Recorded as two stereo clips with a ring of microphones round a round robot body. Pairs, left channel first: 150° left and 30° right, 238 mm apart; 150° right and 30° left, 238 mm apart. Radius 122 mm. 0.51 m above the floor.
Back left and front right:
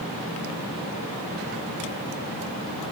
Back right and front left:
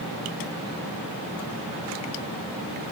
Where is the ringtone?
No ringtone in this recording.